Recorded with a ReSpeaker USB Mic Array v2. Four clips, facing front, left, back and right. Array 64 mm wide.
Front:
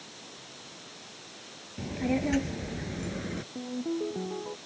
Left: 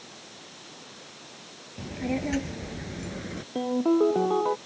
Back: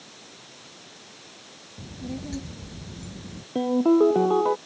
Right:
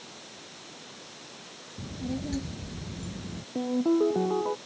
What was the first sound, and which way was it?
A child speaking, 40° left.